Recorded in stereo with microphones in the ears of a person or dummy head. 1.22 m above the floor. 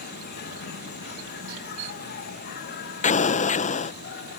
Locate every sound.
0.0 s an insect: 55° left (ahead or behind)
3.0 s an explosion: 35° left (ahead or behind)